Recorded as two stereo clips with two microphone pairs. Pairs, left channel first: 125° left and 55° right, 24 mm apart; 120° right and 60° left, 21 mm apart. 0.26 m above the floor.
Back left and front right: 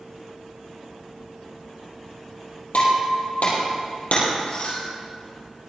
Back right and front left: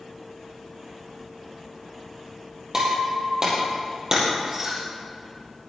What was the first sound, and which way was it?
Breaking glass, 120° left.